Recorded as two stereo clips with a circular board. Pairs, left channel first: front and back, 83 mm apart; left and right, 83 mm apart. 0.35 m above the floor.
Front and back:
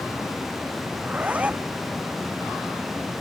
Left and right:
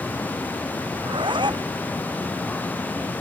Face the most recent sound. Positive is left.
turn(degrees=-105)